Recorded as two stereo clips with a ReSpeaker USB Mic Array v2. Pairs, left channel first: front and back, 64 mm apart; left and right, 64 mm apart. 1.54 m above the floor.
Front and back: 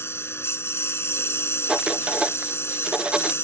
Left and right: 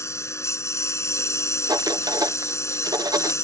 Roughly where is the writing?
Right.